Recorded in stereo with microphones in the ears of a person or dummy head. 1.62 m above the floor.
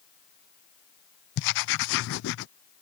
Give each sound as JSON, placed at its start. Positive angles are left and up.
{"t": 1.4, "sound": "writing", "side_deg": 70}